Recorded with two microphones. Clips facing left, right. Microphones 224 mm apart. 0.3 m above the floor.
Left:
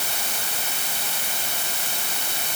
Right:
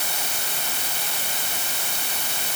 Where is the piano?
I don't hear a piano.